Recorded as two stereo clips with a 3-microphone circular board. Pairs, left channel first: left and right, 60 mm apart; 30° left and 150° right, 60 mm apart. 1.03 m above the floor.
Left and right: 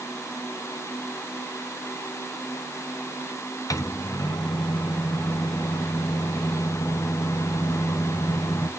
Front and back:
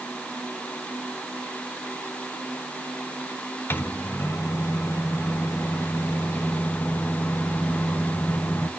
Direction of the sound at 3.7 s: 80° left.